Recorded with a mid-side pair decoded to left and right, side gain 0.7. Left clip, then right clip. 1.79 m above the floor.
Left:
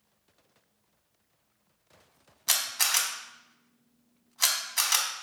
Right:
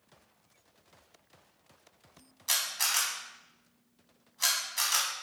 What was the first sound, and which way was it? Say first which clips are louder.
A camera shutter: left 3 dB; 30° left.